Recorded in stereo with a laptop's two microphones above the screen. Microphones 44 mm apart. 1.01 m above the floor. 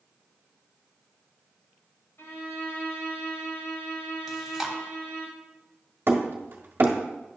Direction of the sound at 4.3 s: 10° right (ahead or behind).